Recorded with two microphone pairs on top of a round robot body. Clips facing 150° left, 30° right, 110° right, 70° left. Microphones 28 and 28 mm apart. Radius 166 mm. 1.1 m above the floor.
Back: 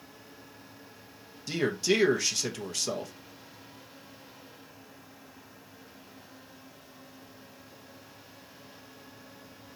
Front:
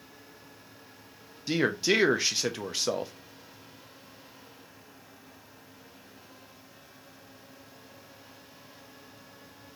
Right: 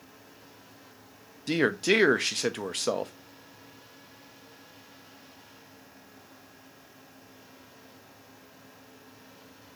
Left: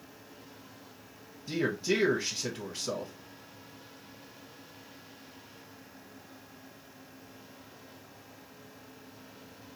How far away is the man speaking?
About 0.7 m.